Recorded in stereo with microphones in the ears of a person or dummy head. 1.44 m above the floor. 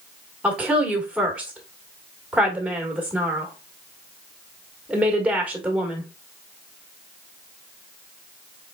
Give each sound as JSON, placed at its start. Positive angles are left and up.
{"t": 0.4, "sound": "a woman speaking", "side_deg": -5, "distance_m": 1.6}